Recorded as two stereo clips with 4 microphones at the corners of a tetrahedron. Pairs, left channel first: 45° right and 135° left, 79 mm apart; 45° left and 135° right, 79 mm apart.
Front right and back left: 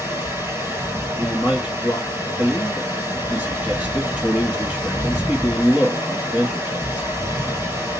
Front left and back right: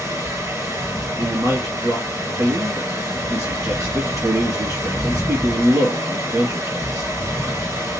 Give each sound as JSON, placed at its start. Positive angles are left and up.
{"t": 0.0, "sound": "running water", "azimuth_deg": -175, "distance_m": 2.0}
{"t": 1.2, "sound": "a man speaking", "azimuth_deg": -160, "distance_m": 1.8}